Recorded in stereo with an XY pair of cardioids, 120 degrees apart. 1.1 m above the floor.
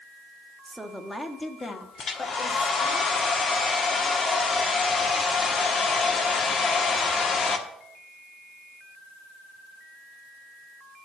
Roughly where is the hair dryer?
Ahead left.